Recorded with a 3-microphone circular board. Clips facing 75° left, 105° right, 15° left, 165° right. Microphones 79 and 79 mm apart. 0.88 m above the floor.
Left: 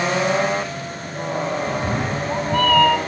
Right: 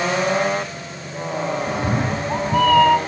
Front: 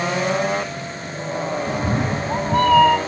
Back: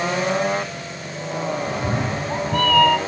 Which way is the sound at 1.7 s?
40° right.